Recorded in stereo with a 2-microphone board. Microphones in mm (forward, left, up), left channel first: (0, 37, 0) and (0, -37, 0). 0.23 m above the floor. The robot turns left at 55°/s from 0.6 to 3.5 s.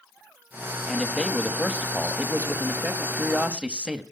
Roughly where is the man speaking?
Centre.